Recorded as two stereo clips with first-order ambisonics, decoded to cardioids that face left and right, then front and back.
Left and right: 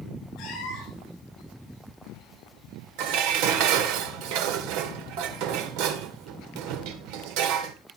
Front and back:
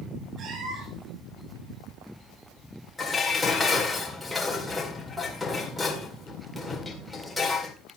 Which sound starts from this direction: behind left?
A cat meowing, at 0.4 s.